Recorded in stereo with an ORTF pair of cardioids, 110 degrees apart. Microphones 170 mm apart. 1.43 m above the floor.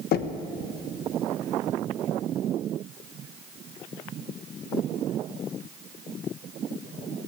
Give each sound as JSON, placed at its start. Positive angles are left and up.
{"t": 0.1, "sound": "knocking", "azimuth_deg": 65, "distance_m": 1.3}